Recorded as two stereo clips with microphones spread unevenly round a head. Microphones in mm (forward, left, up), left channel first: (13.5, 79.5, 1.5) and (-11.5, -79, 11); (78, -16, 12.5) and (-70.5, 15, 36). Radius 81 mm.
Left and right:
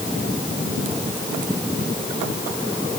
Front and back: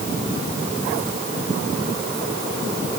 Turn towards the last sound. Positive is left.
No sound to turn to.